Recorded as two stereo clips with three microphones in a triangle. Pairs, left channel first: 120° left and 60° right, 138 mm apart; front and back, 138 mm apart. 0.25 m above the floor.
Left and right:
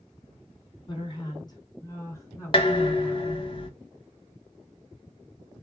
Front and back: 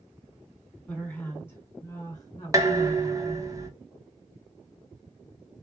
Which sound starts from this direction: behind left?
Dishes clattering, at 2.5 s.